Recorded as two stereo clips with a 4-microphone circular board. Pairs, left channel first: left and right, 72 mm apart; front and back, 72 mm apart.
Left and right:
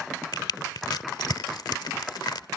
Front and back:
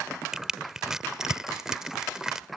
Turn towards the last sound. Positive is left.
turn(degrees=100)